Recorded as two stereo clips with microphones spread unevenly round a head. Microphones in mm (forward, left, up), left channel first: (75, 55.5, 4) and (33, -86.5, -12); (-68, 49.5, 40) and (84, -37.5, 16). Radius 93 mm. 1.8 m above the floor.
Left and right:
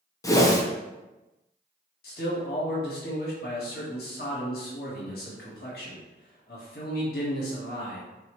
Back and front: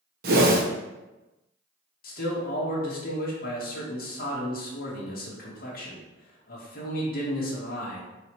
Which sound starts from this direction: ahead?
A whoosh, at 0.2 s.